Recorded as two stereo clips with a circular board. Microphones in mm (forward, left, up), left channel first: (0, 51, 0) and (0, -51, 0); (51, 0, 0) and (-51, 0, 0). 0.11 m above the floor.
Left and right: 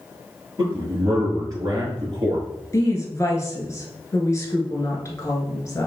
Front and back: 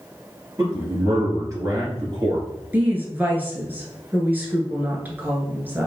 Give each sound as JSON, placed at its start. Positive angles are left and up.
{"t": 0.6, "sound": "a man speaking", "azimuth_deg": -135, "distance_m": 2.5}
{"t": 2.7, "sound": "a woman speaking", "azimuth_deg": 125, "distance_m": 1.2}